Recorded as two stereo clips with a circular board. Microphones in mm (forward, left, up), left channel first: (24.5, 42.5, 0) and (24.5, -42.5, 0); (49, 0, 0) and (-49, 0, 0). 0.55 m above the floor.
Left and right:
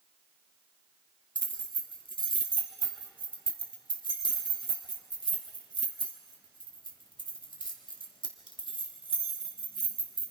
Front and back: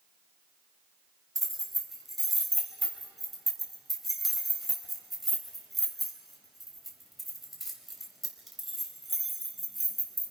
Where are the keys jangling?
90° left, 2.5 m.